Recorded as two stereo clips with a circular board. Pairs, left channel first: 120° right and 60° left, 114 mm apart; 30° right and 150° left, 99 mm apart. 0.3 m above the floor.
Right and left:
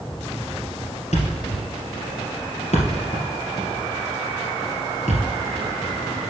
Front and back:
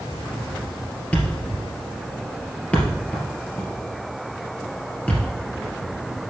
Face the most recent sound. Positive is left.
turn(degrees=-105)